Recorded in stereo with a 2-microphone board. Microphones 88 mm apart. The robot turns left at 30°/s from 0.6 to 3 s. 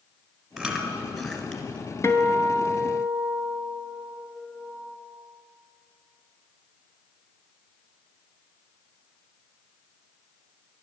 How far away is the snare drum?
I don't hear a snare drum.